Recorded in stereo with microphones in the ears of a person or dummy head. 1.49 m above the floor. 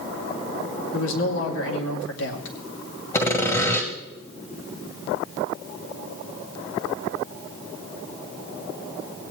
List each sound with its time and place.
0.9 s a man speaking: 75° left (ahead or behind), 2.5 m
3.1 s sawing: 15° left (ahead or behind), 1.8 m